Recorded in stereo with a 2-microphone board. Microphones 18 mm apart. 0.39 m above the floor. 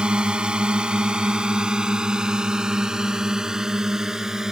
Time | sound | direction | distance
0.0 | a drone | 70° right (ahead or behind) | ?